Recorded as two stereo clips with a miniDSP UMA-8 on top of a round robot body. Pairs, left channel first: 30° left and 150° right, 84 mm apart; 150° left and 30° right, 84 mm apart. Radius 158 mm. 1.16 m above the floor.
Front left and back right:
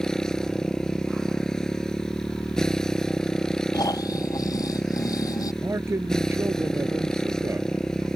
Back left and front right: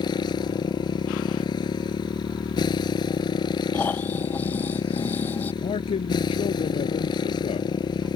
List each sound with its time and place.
0.0 s a motorcycle: 115° left
3.7 s snoring: 80° left
5.6 s a man speaking: 150° left